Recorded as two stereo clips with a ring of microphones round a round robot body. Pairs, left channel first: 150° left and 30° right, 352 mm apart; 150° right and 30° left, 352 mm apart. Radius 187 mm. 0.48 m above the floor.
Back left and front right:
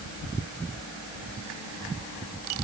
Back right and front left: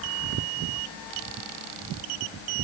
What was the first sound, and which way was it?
Only background noise.